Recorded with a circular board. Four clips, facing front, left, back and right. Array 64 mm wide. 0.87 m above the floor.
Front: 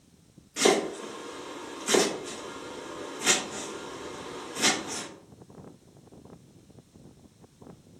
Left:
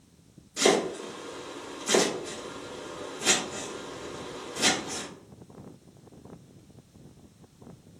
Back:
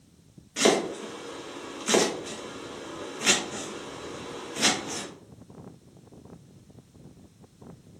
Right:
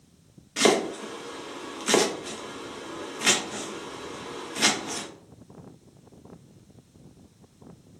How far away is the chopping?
About 0.8 m.